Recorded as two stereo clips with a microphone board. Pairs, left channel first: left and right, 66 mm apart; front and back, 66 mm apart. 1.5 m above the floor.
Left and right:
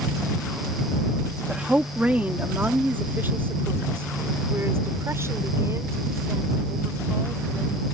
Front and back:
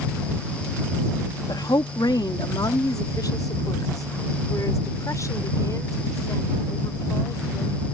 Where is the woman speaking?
10° right; by 7.9 s 45° right.